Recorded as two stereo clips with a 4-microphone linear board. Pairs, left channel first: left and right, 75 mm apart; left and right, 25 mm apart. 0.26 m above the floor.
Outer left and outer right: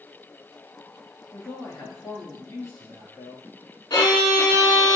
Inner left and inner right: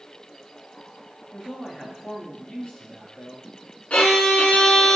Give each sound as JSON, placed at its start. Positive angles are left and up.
{"t": 1.3, "sound": "a man speaking", "side_deg": 65, "distance_m": 3.0}
{"t": 3.9, "sound": "a violin", "side_deg": 70, "distance_m": 1.4}